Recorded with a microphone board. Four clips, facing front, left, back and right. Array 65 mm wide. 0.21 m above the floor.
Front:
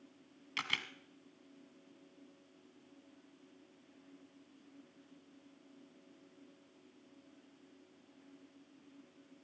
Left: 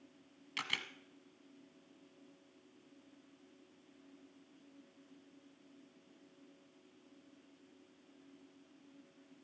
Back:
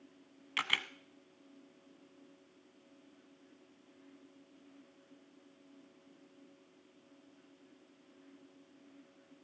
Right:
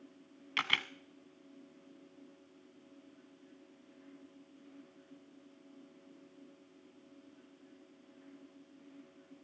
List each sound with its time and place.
0.6 s a camera shutter: 115° right, 0.9 m